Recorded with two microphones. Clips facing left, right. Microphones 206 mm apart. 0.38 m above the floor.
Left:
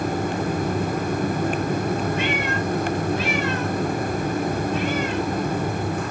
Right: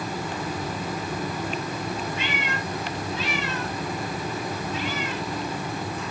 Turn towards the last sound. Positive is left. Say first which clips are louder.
# left 7 dB
turn(degrees=50)  # may be behind; listen again after turning